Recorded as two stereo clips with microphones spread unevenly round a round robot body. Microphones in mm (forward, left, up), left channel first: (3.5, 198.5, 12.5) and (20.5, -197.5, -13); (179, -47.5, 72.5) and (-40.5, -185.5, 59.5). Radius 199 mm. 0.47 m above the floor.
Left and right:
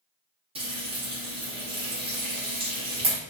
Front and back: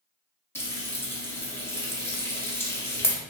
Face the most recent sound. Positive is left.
turn(degrees=-40)